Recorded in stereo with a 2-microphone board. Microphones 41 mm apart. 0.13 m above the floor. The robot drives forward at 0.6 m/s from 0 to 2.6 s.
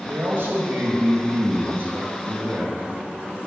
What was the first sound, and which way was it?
A man speaking, 55° right (ahead or behind).